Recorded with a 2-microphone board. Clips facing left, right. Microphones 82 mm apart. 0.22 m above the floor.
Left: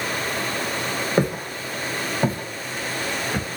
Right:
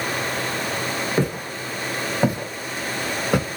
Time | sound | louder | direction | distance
1.2 | footsteps | left 1 dB | 15° left (ahead or behind) | 1.1 m